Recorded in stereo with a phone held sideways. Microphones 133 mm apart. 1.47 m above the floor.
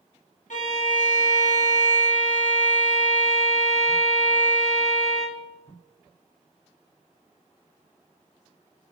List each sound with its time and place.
0.5 s a violin: 70° left (ahead or behind), 1.2 m